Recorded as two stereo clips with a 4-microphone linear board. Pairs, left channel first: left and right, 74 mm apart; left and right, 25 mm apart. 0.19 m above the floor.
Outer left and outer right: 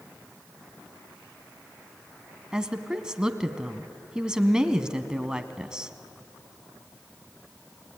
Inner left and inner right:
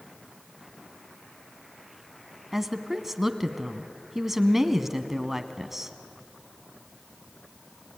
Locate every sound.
2.5 s a woman speaking: 10° right (ahead or behind), 1.4 m